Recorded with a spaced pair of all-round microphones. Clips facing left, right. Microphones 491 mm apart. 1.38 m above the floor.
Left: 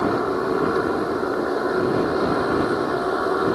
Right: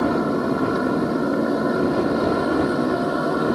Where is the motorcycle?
50° right (ahead or behind); by 3.5 s 45° right (ahead or behind).